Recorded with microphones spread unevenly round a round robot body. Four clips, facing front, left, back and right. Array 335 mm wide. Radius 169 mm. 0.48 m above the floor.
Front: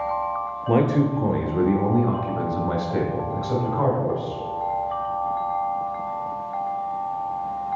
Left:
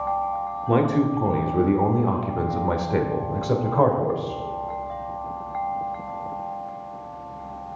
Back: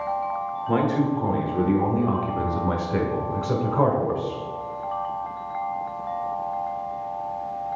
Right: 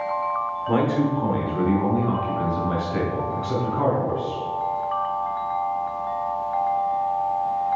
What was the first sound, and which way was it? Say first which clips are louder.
A man speaking: left 1 dB, front 2 dB; 35° left.